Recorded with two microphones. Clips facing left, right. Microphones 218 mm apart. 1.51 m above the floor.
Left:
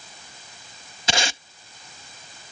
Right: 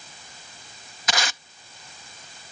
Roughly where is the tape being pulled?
Left.